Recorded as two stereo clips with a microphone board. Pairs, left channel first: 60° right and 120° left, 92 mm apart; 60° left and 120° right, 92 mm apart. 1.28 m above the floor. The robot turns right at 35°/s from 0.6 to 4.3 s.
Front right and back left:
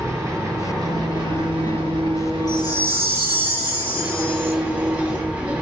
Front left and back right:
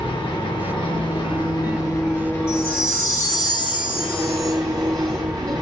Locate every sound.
0.0 s an engine running: 60° left, 1.3 m; by 5.6 s 170° right, 1.3 m
2.5 s a chime: 95° right, 1.3 m; by 4.5 s 30° right, 1.3 m